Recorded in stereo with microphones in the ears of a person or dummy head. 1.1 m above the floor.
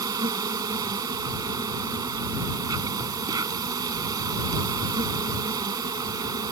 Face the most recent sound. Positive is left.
turn(degrees=-25)  # may be behind; listen again after turning